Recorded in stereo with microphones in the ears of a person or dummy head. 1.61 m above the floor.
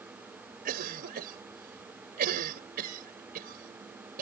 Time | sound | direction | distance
0.7 | a cough | 45° right (ahead or behind) | ?